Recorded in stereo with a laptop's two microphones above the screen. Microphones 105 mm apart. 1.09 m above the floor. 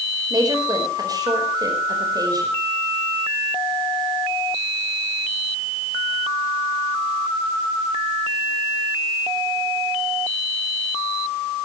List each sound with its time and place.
0.3 s a woman speaking: 35° right (ahead or behind), 4.5 m